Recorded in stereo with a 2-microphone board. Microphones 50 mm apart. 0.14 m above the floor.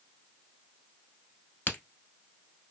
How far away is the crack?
About 0.9 m.